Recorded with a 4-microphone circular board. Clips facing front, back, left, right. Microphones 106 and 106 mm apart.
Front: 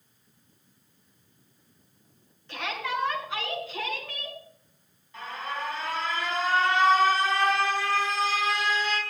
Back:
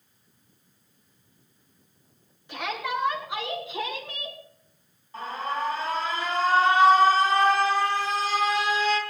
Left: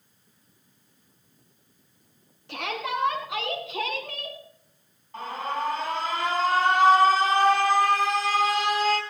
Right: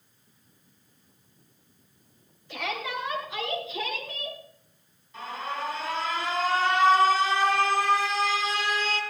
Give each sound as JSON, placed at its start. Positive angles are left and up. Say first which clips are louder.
{"t": 2.5, "sound": "a shout", "louder": "back 2 dB, left 2 dB", "azimuth_deg": 100, "distance_m": 7.0}
{"t": 5.1, "sound": "an alarm", "louder": "back 5 dB, left 4 dB", "azimuth_deg": 125, "distance_m": 5.0}